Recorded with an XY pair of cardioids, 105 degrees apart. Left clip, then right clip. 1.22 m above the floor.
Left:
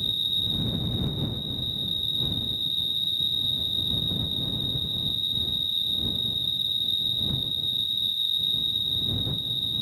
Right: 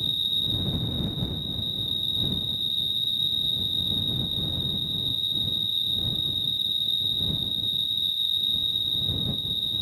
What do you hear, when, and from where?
0.0 s an insect: 5° right